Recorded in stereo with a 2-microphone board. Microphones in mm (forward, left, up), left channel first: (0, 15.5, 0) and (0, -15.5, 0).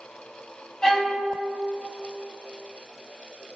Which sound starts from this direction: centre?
A violin, at 0.8 s.